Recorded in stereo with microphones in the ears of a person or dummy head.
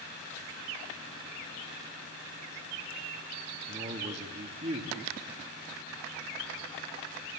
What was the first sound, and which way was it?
A man speaking, 35° right (ahead or behind).